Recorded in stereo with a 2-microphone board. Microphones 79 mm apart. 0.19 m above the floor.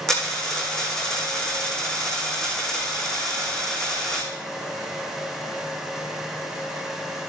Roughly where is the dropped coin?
Centre.